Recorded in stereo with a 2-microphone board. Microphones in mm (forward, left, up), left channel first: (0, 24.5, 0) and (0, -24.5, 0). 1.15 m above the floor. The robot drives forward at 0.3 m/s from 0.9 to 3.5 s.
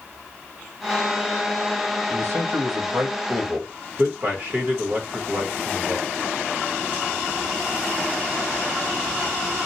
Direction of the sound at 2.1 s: 65° right (ahead or behind).